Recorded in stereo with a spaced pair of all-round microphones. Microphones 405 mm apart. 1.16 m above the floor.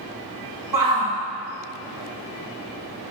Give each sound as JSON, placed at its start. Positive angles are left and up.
{"t": 0.7, "sound": "a shout", "side_deg": -50, "distance_m": 1.5}